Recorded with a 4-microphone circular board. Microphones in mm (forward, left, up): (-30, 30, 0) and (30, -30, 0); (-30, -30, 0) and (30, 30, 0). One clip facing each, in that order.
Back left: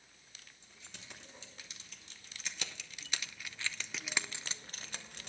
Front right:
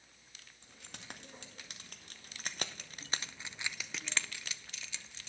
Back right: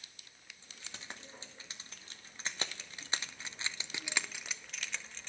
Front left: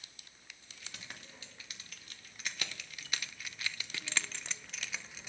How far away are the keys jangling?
About 2 m.